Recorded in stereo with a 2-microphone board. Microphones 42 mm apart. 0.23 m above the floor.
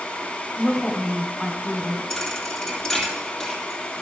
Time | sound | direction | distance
0.6 | a woman speaking | 10° right (ahead or behind) | 1.3 m
2.1 | a thud | 5° left (ahead or behind) | 2 m